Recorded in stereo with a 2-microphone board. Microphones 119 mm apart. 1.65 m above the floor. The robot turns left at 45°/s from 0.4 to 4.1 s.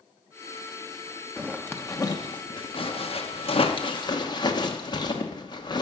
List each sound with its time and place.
1.4 s a zipper: 5° left (ahead or behind), 1.0 m; by 5.8 s 35° left (ahead or behind), 1.0 m